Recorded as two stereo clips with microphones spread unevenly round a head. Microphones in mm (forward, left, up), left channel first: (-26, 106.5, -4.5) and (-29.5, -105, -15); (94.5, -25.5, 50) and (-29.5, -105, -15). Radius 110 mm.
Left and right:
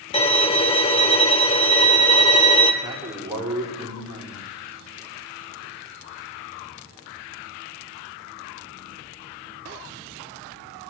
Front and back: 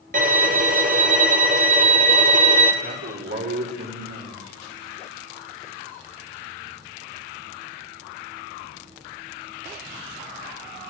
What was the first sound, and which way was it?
A violin, 150° left.